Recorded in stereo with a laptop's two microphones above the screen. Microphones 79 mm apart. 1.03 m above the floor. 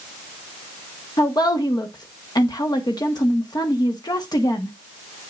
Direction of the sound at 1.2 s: 55° left (ahead or behind).